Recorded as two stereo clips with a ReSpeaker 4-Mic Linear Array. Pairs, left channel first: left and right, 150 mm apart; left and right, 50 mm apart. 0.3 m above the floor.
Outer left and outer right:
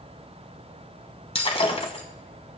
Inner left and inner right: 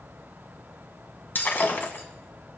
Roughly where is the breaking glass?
Left.